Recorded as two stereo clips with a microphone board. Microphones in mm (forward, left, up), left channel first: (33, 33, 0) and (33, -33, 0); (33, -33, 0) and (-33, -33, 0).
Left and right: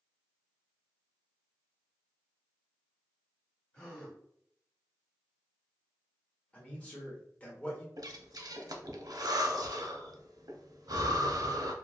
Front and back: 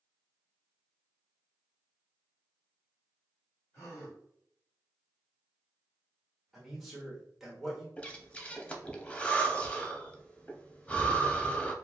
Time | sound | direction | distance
3.7 | a gasp | 20° left | 1.5 m
6.5 | a man speaking | 100° left | 1.0 m
8.0 | breathing | 70° right | 0.5 m